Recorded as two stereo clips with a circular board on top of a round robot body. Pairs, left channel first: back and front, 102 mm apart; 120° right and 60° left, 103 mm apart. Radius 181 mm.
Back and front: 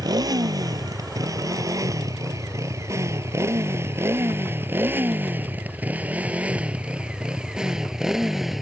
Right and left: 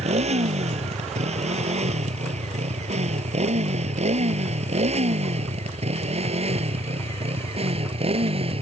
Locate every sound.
0.0 s a motorcycle: 55° left; by 8.6 s 90° left